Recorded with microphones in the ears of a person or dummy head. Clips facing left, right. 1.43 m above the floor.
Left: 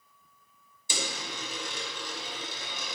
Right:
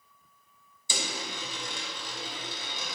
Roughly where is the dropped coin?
Right.